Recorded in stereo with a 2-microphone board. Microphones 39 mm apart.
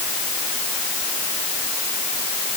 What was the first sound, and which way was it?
Only background noise.